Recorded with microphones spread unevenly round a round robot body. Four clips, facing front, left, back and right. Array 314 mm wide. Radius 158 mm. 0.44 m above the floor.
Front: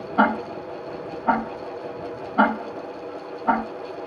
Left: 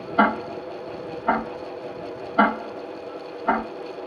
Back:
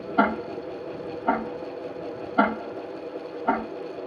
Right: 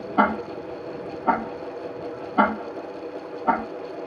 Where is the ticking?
90° right, 4.5 m.